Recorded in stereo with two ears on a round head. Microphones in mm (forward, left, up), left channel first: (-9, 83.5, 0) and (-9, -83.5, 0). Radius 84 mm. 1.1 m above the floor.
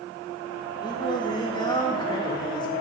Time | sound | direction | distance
0.8 | singing | 25° left (ahead or behind) | 3.5 m